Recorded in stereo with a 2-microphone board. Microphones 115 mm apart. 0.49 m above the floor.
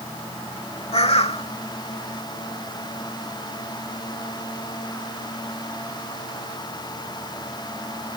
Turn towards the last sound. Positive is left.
turn(degrees=60)  # may be behind; listen again after turning